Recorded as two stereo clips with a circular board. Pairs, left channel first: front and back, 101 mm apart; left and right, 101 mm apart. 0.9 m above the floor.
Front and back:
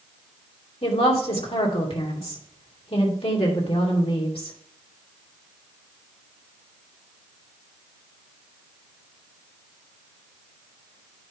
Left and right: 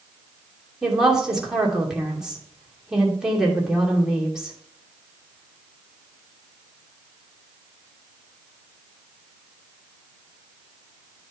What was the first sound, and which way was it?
A woman speaking, 5° right.